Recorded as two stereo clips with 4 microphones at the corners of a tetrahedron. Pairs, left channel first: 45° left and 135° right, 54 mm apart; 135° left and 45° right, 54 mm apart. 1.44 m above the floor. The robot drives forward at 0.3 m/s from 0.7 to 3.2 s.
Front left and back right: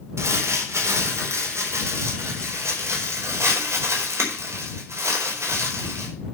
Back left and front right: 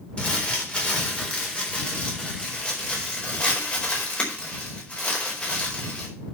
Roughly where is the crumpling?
Behind.